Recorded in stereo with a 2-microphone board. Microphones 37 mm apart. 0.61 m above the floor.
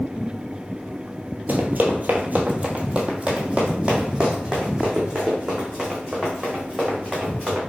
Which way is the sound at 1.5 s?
55° right (ahead or behind).